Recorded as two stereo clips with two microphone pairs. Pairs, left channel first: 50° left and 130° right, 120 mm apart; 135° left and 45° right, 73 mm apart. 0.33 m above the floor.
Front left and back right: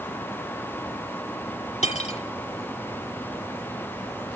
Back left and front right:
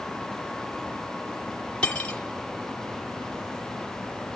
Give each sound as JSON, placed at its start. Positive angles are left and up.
{"t": 1.8, "sound": "cutlery clinking", "azimuth_deg": 60, "distance_m": 1.7}